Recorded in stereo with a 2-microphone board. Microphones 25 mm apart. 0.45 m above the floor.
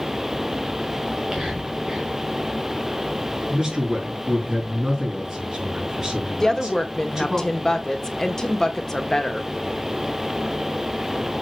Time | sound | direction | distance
1.1 | whispering | 25° right (ahead or behind) | 1.3 m
3.5 | a man speaking | 15° right (ahead or behind) | 4 m
6.4 | a woman speaking | 20° left (ahead or behind) | 1.0 m